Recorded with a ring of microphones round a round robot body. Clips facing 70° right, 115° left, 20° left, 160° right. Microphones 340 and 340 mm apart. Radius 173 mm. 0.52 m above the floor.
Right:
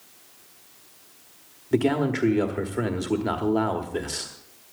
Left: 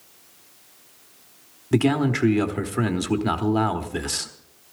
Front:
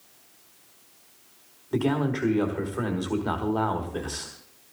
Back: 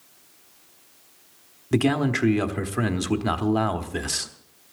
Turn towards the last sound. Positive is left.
turn(degrees=170)